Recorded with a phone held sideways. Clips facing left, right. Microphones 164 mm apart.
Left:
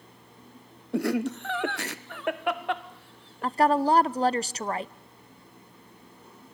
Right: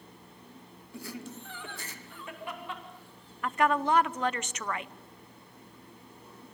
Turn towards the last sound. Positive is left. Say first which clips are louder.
# left 5 dB
turn(degrees=35)  # may be behind; listen again after turning